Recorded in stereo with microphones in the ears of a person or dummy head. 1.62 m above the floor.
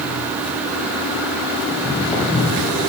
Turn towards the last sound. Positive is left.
turn(degrees=10)  # may be behind; listen again after turning